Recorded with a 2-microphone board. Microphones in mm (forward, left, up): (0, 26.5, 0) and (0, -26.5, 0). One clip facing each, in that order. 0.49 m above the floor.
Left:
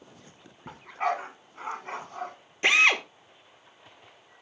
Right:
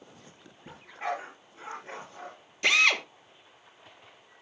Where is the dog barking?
75° left (ahead or behind), 2 m.